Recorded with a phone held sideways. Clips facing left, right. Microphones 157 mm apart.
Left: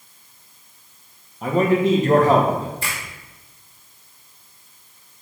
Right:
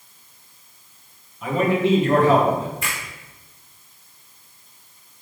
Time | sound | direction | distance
1.4 | a man speaking | 40° left (ahead or behind) | 1.3 m
2.8 | a finger snap | 35° left (ahead or behind) | 3 m